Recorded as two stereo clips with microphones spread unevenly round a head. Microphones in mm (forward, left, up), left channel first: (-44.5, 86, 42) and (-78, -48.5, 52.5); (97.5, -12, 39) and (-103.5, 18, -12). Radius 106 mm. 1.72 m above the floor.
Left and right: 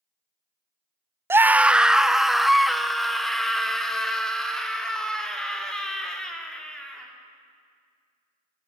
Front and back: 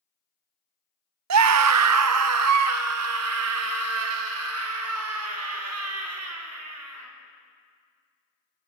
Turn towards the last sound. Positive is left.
turn(degrees=160)